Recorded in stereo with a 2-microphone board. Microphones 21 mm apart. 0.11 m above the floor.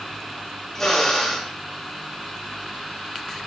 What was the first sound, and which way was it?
A drill, 20° left (ahead or behind).